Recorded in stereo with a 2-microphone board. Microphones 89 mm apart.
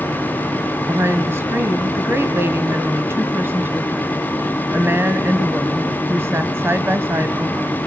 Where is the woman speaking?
30° right (ahead or behind), 1.1 m.